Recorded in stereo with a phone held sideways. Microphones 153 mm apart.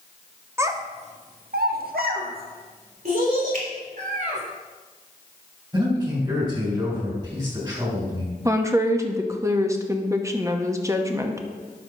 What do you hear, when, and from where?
0.6 s a child speaking: 15° right (ahead or behind), 1.0 m; by 4.4 s 55° right (ahead or behind), 3.5 m
3.5 s a finger snap: 60° right (ahead or behind), 2.5 m
5.7 s a man speaking: 30° right (ahead or behind), 4 m
8.4 s a woman speaking: 20° right (ahead or behind), 0.8 m